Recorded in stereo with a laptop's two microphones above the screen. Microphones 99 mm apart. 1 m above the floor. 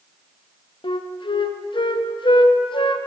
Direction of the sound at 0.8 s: 55° left (ahead or behind).